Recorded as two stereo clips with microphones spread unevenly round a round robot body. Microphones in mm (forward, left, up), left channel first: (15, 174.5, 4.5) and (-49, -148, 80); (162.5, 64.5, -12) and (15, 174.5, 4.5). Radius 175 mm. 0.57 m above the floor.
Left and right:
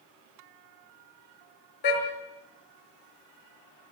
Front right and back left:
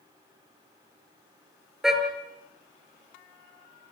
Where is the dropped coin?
I don't hear a dropped coin.